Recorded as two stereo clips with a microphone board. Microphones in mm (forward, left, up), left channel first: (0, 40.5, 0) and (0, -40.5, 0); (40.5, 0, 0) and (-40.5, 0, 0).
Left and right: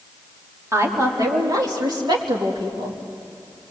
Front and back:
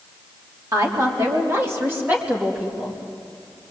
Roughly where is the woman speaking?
Behind right.